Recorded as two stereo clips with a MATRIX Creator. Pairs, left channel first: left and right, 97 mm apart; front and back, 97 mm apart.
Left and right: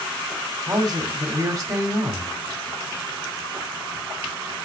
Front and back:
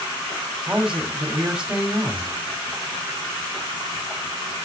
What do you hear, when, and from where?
0.7 s a man speaking: 105° right, 1.8 m